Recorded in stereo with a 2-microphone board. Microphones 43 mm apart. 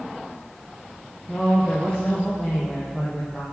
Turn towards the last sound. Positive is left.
turn(degrees=15)  # may be behind; listen again after turning